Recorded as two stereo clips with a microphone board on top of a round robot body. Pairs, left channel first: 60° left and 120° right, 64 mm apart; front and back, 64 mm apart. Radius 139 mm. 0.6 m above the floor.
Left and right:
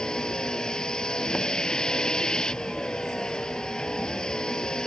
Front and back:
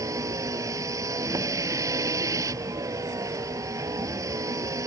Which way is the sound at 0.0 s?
140° left.